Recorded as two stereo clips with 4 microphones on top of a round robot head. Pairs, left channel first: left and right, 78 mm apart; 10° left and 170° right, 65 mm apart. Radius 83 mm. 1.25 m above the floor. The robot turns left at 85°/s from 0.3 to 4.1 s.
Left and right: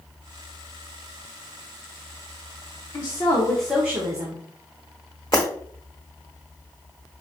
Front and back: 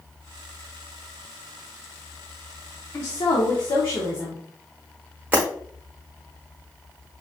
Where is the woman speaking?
60° left, 0.9 m; by 4.4 s 40° right, 0.9 m.